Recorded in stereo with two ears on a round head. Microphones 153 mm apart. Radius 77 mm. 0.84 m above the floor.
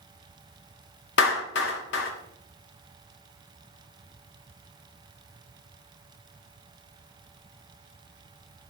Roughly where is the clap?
Left.